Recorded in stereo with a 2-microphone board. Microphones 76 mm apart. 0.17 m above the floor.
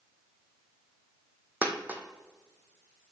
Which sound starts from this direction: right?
A dropped coin, at 1.6 s.